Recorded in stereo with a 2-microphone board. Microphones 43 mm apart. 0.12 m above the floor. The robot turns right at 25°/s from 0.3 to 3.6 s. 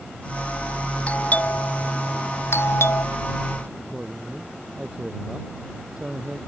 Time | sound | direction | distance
1.1 | a doorbell | 30° left (ahead or behind) | ?
3.8 | a man speaking | 20° right (ahead or behind) | ?